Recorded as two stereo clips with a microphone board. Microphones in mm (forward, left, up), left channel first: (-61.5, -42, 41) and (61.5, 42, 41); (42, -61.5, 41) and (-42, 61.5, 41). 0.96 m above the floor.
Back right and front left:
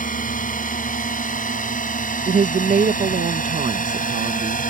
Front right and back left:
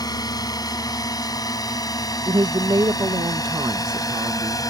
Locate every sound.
0.0 s a drone: 120° right
2.3 s a woman speaking: 60° left